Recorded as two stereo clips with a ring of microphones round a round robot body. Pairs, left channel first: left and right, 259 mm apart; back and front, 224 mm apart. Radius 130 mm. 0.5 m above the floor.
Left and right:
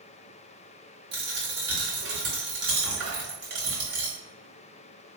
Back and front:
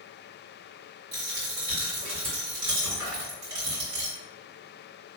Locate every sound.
1.1 s a dropped coin: 40° right, 1.8 m